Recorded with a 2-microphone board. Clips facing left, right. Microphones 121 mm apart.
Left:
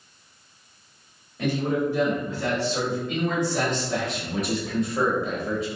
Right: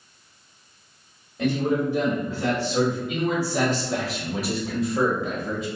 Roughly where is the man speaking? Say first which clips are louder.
Right 2 dB; centre.